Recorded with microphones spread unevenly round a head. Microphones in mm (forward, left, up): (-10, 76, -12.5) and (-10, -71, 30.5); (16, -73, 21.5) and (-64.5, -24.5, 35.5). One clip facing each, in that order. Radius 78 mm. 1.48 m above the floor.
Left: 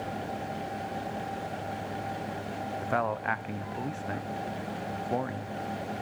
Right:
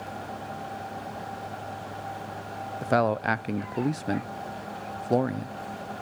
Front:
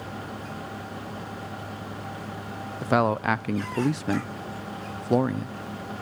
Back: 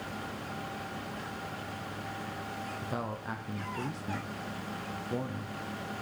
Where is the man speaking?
40° right, 0.5 m.